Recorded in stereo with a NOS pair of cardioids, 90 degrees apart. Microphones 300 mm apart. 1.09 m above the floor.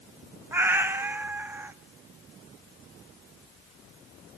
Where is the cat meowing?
5° right, 0.8 m.